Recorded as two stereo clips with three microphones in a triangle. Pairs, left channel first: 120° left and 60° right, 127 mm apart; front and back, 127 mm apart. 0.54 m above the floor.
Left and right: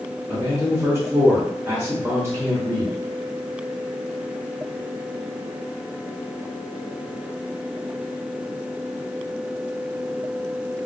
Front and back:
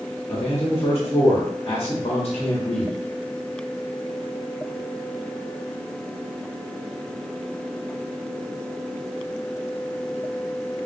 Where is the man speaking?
5° left, 0.9 m.